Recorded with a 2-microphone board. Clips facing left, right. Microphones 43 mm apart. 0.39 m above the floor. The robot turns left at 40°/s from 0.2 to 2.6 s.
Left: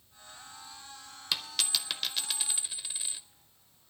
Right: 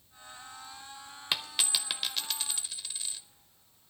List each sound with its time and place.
1.3 s a dropped coin: 25° right (ahead or behind), 0.6 m; by 3.2 s 15° left (ahead or behind), 0.6 m